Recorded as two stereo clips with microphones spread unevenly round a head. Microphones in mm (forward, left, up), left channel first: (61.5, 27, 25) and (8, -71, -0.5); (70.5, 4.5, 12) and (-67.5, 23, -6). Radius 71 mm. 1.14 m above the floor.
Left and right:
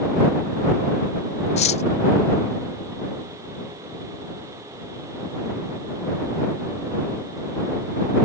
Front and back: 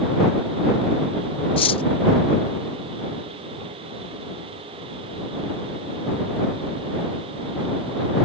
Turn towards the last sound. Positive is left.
turn(degrees=45)